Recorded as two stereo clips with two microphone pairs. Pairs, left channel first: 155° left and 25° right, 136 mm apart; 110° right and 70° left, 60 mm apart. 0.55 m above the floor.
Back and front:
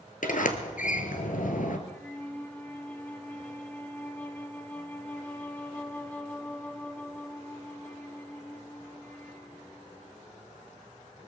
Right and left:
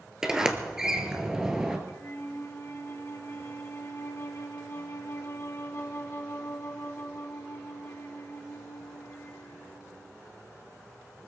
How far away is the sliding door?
About 1.9 m.